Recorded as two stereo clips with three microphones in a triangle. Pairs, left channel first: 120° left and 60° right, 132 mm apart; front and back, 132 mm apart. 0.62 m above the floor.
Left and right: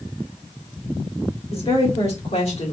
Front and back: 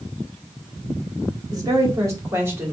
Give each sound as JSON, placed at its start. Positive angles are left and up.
{"t": 1.5, "sound": "a woman speaking", "azimuth_deg": 130, "distance_m": 1.7}